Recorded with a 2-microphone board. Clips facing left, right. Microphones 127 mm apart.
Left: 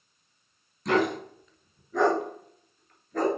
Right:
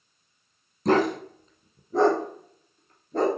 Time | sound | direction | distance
0.8 | a dog barking | 40° right (ahead or behind) | 0.9 m